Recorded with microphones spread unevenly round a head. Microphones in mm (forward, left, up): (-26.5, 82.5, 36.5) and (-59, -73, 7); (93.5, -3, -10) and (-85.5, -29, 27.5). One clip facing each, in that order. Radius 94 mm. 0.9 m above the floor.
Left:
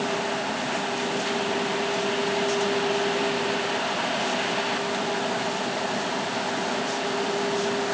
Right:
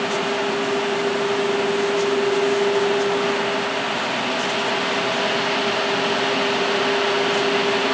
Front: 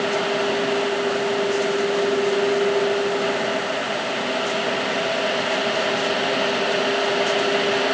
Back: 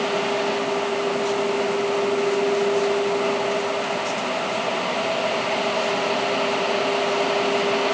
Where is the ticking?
I don't hear ticking.